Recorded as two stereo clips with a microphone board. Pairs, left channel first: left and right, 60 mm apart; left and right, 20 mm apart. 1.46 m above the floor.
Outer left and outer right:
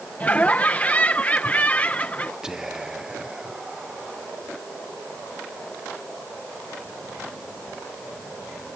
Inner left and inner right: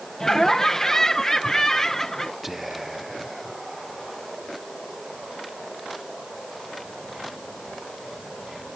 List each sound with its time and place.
0.2 s laughter: 25° left (ahead or behind)
2.4 s whispering: 10° right (ahead or behind)